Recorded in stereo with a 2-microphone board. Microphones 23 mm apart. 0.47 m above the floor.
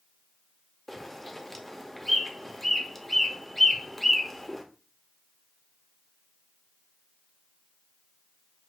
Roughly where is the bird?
Centre.